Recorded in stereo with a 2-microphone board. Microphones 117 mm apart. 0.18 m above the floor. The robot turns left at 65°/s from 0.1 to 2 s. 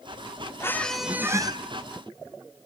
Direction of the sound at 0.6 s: 25° left.